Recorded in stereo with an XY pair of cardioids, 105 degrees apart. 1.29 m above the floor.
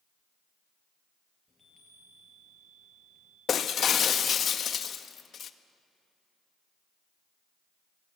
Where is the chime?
20° left, 6 m.